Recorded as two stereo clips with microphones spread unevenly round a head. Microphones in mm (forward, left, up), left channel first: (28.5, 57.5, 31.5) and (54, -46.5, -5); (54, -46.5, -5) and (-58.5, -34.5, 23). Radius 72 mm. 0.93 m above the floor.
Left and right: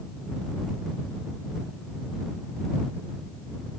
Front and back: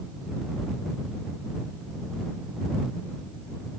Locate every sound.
Only background noise.